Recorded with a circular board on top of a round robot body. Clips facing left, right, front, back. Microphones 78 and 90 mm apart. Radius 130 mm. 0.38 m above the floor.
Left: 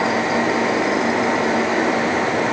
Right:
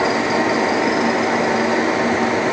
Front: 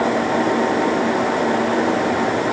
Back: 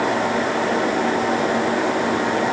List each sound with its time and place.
Only background noise.